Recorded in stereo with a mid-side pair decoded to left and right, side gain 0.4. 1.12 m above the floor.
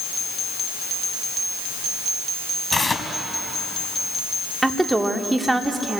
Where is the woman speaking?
15° right, 2.5 m.